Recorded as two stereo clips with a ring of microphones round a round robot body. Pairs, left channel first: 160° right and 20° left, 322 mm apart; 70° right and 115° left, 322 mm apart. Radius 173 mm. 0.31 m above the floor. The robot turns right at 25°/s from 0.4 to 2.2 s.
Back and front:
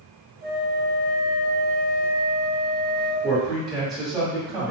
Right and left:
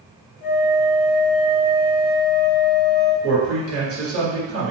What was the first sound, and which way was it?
A flute, 30° right.